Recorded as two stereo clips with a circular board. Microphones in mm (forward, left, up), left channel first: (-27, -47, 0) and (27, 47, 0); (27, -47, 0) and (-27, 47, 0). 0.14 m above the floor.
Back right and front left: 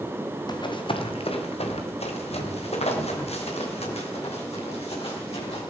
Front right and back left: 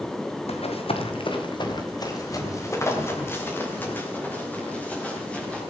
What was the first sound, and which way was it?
Running footsteps, 75° right.